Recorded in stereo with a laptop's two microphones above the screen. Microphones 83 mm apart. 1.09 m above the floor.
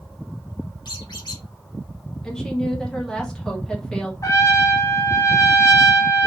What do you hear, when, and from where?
0.8 s a squeak: 65° left (ahead or behind), 0.8 m
2.2 s a woman speaking: 5° left (ahead or behind), 0.8 m
4.2 s a trumpet: 40° left (ahead or behind), 0.7 m